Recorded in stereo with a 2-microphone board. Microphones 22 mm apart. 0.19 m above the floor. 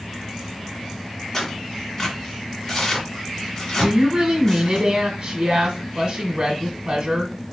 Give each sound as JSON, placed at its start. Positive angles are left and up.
{"t": 1.3, "sound": "tearing paper", "side_deg": 20, "distance_m": 2.0}
{"t": 3.8, "sound": "a woman speaking", "side_deg": -35, "distance_m": 1.2}